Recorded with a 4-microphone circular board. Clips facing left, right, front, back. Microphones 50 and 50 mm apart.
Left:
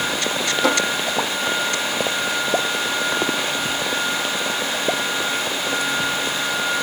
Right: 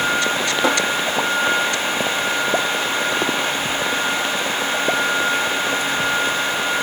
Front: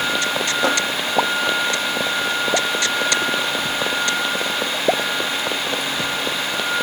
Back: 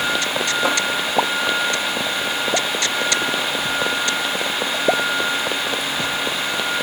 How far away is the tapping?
About 5 m.